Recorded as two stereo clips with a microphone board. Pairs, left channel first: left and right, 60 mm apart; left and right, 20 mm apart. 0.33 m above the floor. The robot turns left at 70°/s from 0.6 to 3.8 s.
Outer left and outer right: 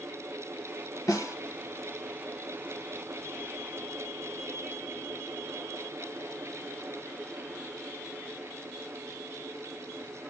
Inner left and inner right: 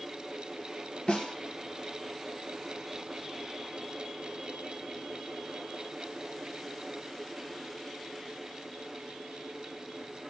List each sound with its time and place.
1.1 s a snare drum: 75° left (ahead or behind), 1.2 m; by 1.4 s 55° left (ahead or behind), 1.2 m